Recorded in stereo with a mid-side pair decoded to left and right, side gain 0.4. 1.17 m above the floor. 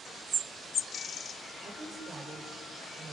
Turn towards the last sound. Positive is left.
turn(degrees=-50)